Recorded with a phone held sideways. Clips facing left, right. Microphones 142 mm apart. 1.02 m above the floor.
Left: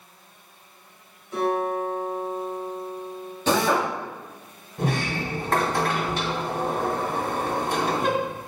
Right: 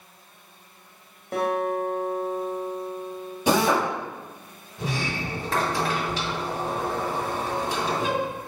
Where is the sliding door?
55° left (ahead or behind), 2 m.